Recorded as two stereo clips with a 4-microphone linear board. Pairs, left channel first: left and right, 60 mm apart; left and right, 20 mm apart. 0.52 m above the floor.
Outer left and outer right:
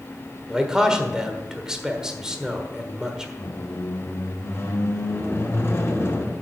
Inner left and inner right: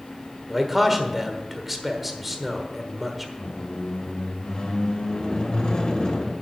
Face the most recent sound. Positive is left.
turn(degrees=40)  # may be behind; listen again after turning